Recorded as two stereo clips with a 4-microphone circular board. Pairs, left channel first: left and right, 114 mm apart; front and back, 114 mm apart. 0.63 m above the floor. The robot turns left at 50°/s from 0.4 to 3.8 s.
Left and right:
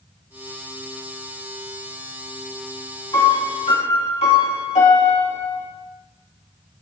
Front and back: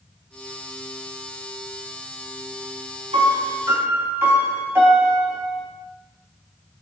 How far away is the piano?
About 3 m.